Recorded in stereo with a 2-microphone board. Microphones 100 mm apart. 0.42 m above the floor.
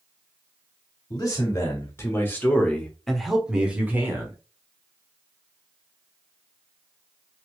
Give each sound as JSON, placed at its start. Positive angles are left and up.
{"t": 1.1, "sound": "a man speaking", "side_deg": 40, "distance_m": 1.3}